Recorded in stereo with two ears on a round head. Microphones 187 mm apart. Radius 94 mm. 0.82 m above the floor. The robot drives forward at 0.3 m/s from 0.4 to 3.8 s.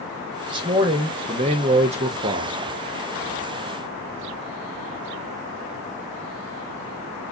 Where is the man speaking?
20° right (ahead or behind), 1.2 m; by 2.6 s 35° right (ahead or behind), 0.7 m.